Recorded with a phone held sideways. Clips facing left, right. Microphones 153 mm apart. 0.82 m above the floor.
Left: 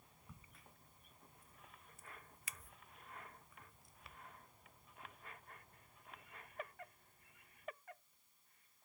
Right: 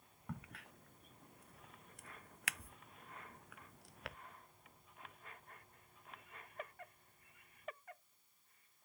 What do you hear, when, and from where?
0.3 s a crack: 70° right (ahead or behind)